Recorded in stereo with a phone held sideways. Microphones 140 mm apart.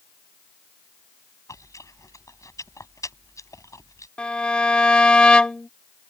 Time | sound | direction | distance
1.5 | chewing | 25° left (ahead or behind) | ?
4.2 | a violin | 5° left (ahead or behind) | ?